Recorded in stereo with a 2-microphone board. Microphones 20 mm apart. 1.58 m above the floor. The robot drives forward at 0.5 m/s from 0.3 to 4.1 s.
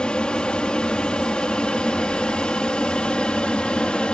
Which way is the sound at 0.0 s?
50° left (ahead or behind).